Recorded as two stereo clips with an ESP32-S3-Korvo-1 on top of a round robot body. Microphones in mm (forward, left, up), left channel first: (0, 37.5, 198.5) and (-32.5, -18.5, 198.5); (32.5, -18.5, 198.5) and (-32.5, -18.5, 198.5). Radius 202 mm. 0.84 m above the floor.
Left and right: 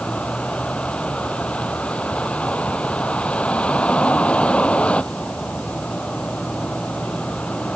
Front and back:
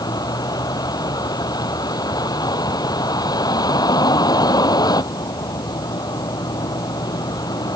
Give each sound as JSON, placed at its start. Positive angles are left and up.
{"t": 0.0, "sound": "a vehicle", "azimuth_deg": -10}